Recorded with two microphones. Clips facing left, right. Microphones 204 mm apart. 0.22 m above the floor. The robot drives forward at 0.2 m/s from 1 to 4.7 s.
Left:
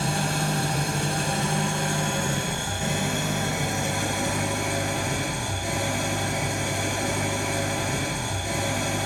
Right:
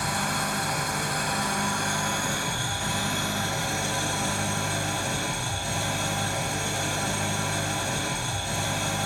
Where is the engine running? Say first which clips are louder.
Left 4 dB; 30° left (ahead or behind), 1.0 m; by 9.1 s 15° left (ahead or behind), 1.7 m.